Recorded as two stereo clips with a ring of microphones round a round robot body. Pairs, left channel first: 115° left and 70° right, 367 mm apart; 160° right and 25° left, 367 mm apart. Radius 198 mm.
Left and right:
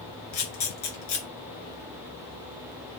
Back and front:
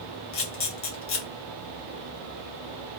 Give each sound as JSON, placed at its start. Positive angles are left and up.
{"t": 0.3, "sound": "a camera shutter", "azimuth_deg": 150, "distance_m": 1.3}